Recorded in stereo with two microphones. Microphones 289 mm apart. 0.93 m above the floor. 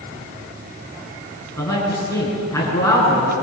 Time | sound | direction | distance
1.6 | a man speaking | 10° left (ahead or behind) | 9 m